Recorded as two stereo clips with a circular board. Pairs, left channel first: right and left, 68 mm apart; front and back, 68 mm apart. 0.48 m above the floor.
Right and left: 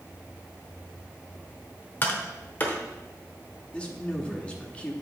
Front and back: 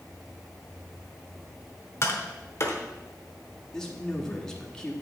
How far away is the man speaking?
About 0.9 m.